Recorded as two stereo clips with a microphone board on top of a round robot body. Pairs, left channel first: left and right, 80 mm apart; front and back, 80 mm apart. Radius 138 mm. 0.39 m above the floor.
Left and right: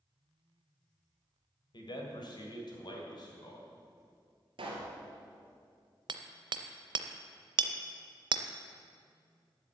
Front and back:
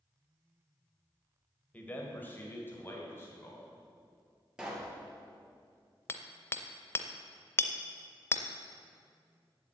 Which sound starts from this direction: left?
A man speaking, at 1.7 s.